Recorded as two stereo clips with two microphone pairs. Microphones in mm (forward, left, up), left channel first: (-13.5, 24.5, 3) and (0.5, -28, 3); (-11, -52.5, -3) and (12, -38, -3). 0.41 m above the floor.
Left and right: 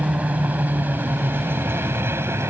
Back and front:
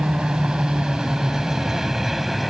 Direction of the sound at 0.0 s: 15° right.